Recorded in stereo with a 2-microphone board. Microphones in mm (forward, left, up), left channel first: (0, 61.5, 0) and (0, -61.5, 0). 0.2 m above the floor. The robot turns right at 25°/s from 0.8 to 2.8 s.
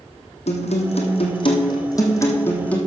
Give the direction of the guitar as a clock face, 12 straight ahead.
8 o'clock.